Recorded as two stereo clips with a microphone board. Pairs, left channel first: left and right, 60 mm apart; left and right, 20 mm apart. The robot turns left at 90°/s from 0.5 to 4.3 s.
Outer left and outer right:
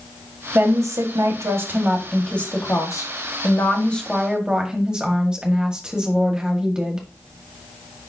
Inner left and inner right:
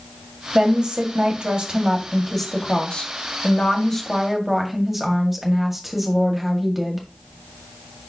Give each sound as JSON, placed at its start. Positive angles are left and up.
{"t": 0.6, "sound": "a woman speaking", "azimuth_deg": -35, "distance_m": 1.9}